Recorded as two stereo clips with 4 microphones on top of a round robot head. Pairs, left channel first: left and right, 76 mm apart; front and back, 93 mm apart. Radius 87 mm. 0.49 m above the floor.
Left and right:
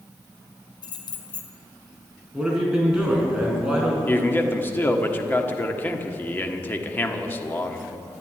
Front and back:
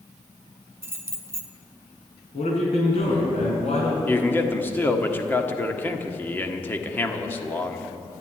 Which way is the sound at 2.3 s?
10° right.